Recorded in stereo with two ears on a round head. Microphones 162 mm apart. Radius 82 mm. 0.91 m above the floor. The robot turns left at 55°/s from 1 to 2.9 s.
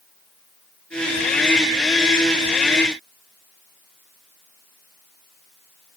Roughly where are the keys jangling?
No keys jangling in this recording.